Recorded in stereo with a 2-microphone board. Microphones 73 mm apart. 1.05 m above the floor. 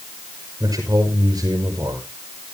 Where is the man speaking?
50° right (ahead or behind), 5 m.